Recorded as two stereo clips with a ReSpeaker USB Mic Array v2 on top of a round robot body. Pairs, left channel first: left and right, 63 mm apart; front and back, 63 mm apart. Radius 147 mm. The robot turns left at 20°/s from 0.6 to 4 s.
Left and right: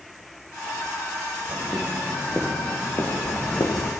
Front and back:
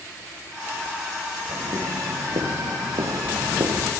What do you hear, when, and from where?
1.5 s footsteps: 170° right, 6.5 m; by 3.9 s 130° left, 4 m